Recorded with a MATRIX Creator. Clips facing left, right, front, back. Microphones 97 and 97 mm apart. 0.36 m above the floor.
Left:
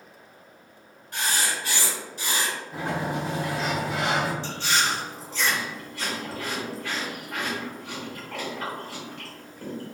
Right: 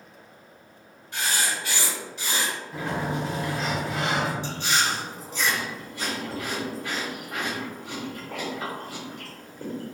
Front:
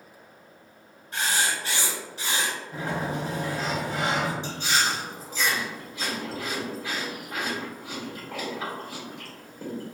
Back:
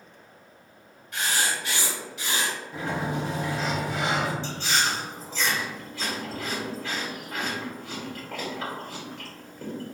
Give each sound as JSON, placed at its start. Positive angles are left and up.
{"t": 1.1, "sound": "writing", "azimuth_deg": 50, "distance_m": 2.0}
{"t": 2.7, "sound": "a sliding door", "azimuth_deg": 40, "distance_m": 1.0}
{"t": 4.4, "sound": "chewing", "azimuth_deg": -45, "distance_m": 1.2}